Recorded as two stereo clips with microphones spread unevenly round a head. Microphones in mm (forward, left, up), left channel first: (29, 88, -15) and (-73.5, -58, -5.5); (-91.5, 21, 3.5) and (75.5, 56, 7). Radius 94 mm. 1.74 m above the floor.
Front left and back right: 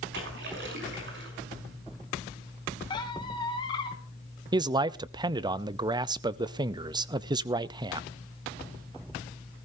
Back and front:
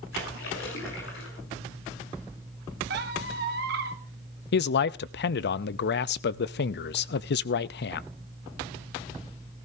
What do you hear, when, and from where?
0.1 s a splash: 140° right, 6.5 m
2.9 s a squeak: 10° right, 1.3 m
4.5 s a man speaking: 170° left, 0.6 m